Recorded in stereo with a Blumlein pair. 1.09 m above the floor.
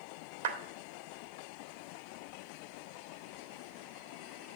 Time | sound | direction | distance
0.4 | a clap | 60° right | 1.7 m